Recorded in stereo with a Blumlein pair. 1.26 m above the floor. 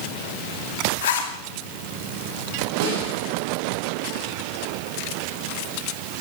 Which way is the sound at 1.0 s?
60° left.